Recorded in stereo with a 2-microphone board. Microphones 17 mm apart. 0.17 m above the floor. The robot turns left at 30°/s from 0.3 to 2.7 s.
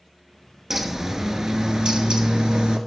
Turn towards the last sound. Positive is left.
turn(degrees=-80)